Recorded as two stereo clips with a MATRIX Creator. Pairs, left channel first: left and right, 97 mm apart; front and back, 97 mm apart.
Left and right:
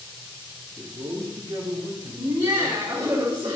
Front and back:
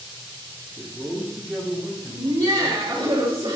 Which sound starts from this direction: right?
A man speaking, at 0.8 s.